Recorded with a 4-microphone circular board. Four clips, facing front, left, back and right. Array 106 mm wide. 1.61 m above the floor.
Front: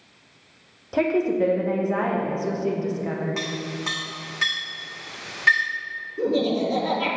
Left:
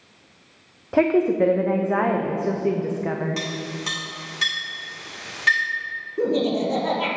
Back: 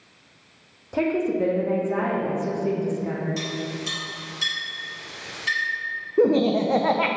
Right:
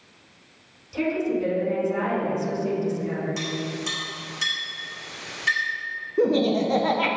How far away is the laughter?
About 0.9 m.